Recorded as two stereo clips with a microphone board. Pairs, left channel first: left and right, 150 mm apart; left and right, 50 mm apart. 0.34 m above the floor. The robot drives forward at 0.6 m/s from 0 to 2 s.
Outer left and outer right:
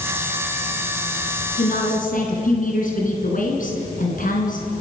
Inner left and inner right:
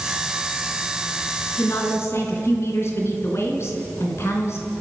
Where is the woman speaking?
60° left (ahead or behind), 3.5 m; by 4.7 s 65° left (ahead or behind), 3 m.